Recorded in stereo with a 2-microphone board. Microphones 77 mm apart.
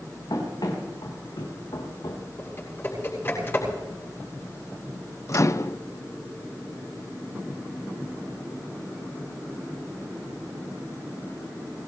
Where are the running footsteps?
70° left (ahead or behind), 5 m.